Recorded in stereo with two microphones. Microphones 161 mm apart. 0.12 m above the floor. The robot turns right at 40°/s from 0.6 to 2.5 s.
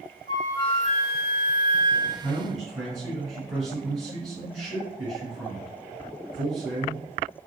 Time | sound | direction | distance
0.3 | a flute | 50° left | 0.8 m
2.2 | a man speaking | 5° left (ahead or behind) | 1.8 m